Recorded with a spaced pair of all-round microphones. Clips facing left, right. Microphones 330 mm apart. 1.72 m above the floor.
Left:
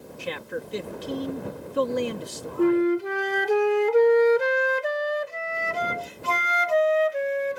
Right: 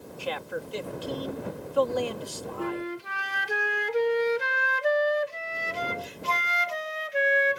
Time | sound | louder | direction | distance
0.2 | a man speaking | left 1 dB | 30° left (ahead or behind) | ?
2.6 | a flute | left 14 dB | 60° left (ahead or behind) | ?